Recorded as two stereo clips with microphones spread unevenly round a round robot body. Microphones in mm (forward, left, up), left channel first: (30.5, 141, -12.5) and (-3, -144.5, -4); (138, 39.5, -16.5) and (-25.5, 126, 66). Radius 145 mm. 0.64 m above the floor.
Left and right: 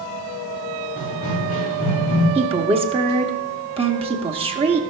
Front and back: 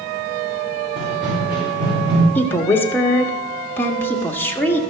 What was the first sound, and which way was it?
Running footsteps, 125° left.